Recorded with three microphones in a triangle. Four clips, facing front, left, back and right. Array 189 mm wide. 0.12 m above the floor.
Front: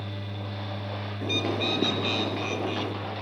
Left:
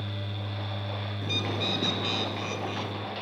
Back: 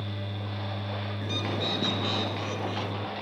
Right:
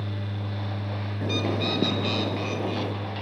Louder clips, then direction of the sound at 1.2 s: Right 6 dB, front 5 dB; 70° right.